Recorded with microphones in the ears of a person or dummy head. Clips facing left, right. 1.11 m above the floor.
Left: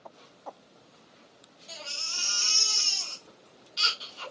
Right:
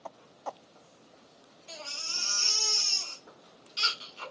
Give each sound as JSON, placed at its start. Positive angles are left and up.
{"t": 1.7, "sound": "a baby crying", "side_deg": -30, "distance_m": 1.5}